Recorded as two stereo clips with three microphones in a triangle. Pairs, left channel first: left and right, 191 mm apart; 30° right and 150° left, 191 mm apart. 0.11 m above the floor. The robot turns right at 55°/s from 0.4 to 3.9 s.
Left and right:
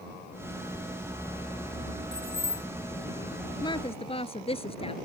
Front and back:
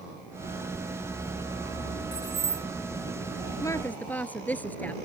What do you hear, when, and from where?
2.1 s keys jangling: 85° right; by 2.7 s 55° right
3.6 s a woman speaking: 30° left; by 5.0 s 45° left